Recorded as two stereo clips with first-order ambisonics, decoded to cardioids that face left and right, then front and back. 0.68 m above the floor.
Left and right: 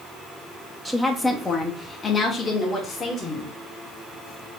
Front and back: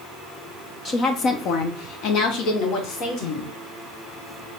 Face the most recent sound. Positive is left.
turn(degrees=25)